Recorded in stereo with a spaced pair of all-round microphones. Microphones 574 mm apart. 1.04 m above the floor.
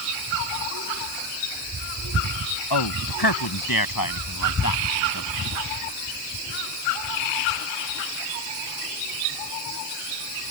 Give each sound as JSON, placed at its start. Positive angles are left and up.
{"t": 2.7, "sound": "a man speaking", "side_deg": 45}